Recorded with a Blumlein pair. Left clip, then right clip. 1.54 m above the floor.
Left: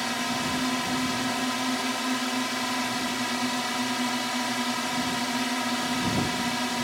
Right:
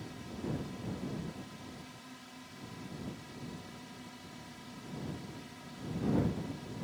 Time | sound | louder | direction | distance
0.0 | a drone | left 17 dB | 50° left | ?